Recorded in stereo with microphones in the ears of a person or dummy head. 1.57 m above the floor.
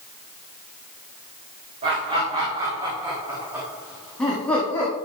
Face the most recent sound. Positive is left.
turn(degrees=15)  # may be behind; listen again after turning